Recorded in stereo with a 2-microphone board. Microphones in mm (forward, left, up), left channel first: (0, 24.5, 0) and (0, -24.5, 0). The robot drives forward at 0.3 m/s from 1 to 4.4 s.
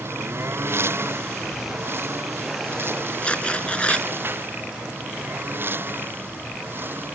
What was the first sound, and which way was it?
A lawn mower, 55° right (ahead or behind).